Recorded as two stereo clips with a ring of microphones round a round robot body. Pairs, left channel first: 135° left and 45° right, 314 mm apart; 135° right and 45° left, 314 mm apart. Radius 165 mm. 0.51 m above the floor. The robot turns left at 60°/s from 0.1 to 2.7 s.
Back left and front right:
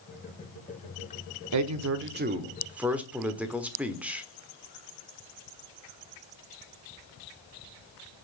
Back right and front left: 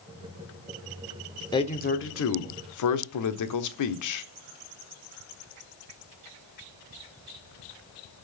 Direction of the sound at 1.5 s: 60° right.